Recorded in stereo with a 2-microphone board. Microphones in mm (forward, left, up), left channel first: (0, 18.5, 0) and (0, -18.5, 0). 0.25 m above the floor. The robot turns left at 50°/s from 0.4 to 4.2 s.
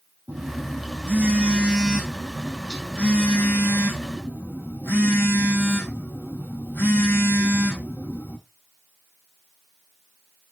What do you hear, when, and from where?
0.3 s a phone buzzing: 85° right, 2.0 m; by 8.4 s 85° left, 2.0 m